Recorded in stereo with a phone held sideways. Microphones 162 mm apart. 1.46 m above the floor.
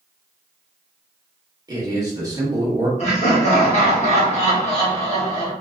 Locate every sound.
1.7 s a man speaking: 25° right (ahead or behind), 1.1 m
3.0 s laughter: 45° left (ahead or behind), 1.1 m